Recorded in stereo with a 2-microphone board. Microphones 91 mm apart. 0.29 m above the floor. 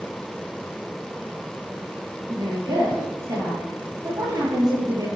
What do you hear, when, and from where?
2.3 s a woman speaking: 45° right (ahead or behind), 6 m